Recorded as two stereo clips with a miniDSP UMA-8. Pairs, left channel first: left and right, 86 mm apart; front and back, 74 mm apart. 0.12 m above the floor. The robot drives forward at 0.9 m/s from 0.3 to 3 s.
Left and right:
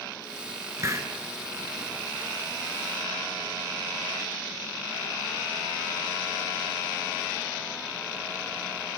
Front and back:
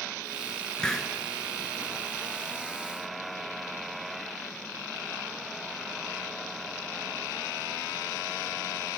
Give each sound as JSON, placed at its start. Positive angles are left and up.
{"t": 0.8, "sound": "a hiss", "azimuth_deg": -75, "distance_m": 1.7}